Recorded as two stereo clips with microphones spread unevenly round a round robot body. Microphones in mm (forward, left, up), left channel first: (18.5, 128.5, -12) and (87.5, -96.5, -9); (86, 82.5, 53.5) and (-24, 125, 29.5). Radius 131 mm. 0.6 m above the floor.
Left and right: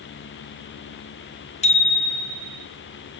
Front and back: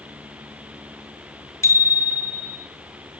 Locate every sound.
1.6 s a bicycle bell: 45° left, 4.5 m; by 2.6 s 35° left, 4.5 m